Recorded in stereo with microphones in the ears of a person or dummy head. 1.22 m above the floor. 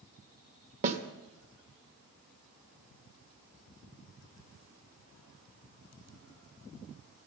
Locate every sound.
0.8 s a snare drum: 40° right (ahead or behind), 1.1 m